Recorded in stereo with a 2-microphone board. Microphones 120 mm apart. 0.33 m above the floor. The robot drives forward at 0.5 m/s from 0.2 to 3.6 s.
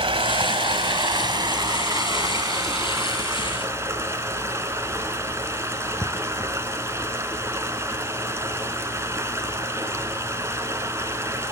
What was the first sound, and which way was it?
Running water, 55° right (ahead or behind).